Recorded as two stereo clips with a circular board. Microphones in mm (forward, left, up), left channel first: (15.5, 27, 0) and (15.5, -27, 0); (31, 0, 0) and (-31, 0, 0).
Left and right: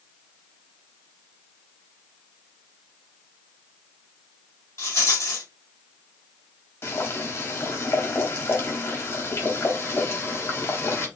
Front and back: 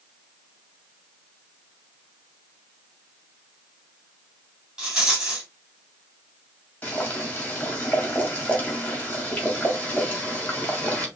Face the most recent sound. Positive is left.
turn(degrees=65)